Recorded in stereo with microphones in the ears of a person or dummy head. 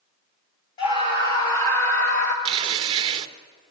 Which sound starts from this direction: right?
Tearing paper, at 2.5 s.